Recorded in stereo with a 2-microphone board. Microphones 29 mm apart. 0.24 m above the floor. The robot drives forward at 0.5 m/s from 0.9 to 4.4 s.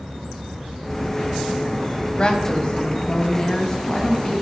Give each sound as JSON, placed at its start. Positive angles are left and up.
{"t": 2.2, "sound": "a woman speaking", "side_deg": 35, "distance_m": 1.3}